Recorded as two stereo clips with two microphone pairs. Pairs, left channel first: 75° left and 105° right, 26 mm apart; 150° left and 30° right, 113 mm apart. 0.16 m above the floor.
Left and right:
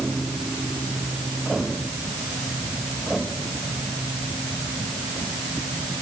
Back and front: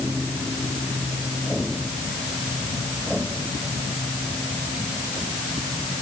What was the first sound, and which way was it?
Only background noise.